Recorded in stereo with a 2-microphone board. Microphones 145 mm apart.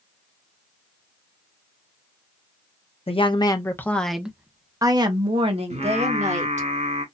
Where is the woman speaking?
40° left (ahead or behind), 0.9 m; by 6.7 s 50° right (ahead or behind), 1.8 m.